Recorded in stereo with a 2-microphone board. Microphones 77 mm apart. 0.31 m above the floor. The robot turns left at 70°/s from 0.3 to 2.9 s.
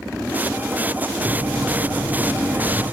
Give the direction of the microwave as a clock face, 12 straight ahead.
2 o'clock.